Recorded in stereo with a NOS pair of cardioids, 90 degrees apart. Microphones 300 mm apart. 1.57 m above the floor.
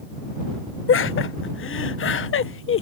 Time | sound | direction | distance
0.9 | laughter | 45° left | ?